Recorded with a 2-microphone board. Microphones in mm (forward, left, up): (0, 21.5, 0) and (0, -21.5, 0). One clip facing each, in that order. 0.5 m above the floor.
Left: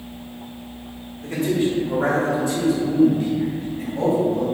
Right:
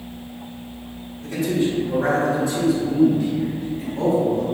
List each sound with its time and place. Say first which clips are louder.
1.2 s a man speaking: left 1 dB; 40° left (ahead or behind), 1.0 m; by 4.4 s 65° left (ahead or behind), 2.5 m